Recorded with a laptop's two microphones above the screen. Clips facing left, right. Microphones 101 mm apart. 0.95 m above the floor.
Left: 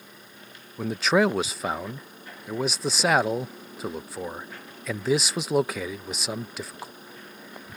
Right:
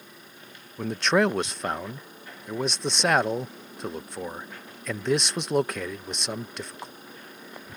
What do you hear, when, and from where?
0.8 s a man speaking: 5° left (ahead or behind)